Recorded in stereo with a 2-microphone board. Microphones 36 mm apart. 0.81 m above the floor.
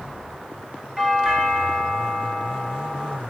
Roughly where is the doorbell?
Centre.